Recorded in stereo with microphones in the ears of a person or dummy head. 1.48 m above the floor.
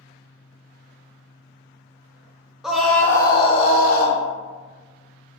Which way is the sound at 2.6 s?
5° right (ahead or behind).